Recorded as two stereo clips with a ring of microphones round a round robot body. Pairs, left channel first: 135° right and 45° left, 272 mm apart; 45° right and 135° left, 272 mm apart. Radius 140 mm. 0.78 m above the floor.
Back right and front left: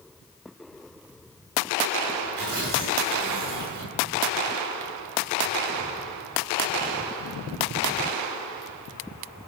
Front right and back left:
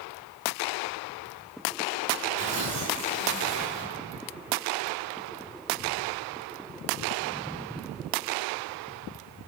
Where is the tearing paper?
70° left, 8 m.